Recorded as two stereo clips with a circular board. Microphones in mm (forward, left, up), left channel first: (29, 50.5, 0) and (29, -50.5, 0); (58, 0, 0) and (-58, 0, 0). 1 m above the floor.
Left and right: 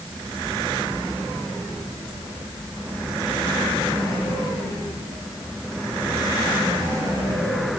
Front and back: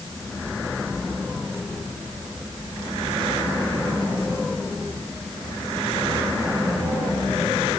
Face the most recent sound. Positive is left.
No sound to turn to.